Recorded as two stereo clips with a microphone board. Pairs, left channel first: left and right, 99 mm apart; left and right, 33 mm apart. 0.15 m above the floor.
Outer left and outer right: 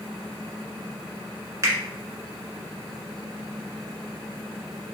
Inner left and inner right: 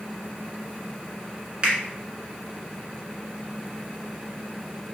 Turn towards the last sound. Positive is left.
turn(degrees=-30)  # may be behind; listen again after turning